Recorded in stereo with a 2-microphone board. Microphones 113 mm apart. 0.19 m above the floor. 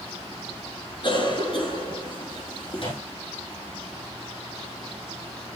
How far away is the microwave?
About 5.5 m.